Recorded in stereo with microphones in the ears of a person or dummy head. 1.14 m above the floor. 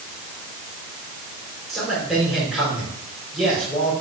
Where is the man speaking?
5° left (ahead or behind), 4.5 m.